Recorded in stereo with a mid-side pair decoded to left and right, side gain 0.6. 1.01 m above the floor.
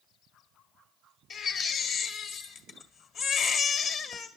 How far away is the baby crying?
About 1.6 m.